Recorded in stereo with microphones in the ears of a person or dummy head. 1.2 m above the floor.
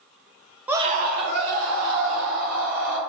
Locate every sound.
0.7 s a scream: 15° right (ahead or behind), 0.5 m; by 3.0 s 75° right (ahead or behind), 3.5 m